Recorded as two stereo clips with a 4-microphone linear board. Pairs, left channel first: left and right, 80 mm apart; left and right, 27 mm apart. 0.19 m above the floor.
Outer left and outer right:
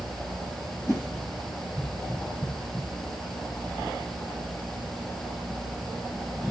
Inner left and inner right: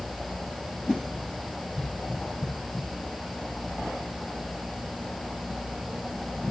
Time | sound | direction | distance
0.9 | a whoosh | 35° left (ahead or behind) | 3 m